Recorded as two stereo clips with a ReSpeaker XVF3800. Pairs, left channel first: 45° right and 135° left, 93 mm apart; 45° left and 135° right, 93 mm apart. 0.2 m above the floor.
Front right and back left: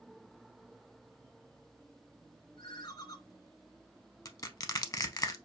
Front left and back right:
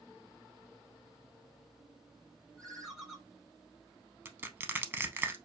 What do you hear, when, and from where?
2.6 s a ringtone: 40° right, 1.1 m
4.2 s crushing: 75° right, 0.5 m